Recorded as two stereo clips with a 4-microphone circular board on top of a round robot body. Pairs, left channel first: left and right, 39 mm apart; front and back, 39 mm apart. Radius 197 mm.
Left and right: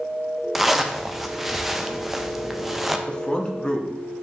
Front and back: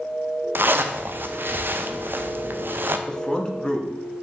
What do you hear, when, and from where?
0.6 s a zipper: 175° right, 0.5 m
3.1 s a man speaking: 50° left, 1.1 m